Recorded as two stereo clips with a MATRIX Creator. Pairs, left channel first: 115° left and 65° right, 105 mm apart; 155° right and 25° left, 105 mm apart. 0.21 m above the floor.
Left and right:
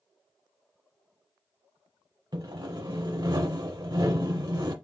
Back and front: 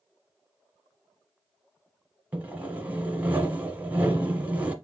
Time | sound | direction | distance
2.3 | sawing | 45° right | 0.9 m